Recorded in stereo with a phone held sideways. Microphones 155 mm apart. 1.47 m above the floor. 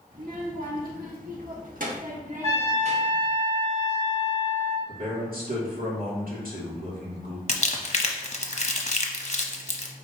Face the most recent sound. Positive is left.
turn(degrees=45)  # may be behind; listen again after turning